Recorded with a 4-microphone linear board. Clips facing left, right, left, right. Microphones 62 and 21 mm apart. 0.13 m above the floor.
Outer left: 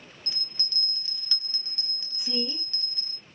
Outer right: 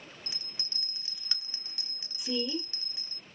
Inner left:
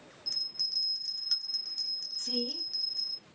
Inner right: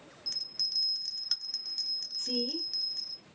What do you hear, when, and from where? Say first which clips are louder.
0.3 s a bell: outer left 5 dB, even; 15° right (ahead or behind), 0.9 m
2.2 s a woman speaking: outer right 1 dB, inner right 1 dB; 30° left (ahead or behind), 1.8 m